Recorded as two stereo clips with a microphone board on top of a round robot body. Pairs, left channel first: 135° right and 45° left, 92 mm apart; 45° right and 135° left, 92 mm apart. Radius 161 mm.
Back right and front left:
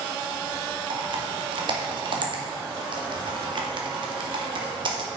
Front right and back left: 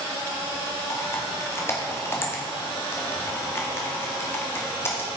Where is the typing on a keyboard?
20° left, 2 m.